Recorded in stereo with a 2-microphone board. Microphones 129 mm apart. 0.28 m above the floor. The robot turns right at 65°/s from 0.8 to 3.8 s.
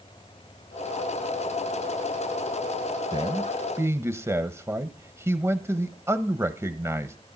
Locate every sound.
3.1 s a man speaking: 80° right, 1.1 m; by 7.2 s 35° right, 1.1 m